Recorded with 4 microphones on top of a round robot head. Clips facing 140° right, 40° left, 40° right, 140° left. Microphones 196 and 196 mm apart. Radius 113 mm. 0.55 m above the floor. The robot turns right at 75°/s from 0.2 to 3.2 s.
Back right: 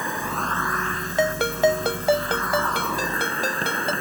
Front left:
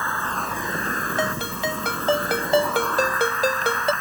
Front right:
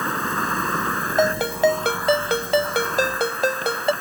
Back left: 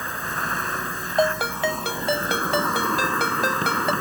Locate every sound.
0.0 s an insect: 65° right; by 4.0 s 160° left
1.2 s a ringtone: 130° right; by 3.9 s 25° left